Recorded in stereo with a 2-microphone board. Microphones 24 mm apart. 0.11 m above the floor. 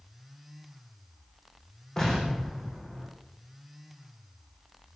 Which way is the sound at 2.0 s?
20° left (ahead or behind).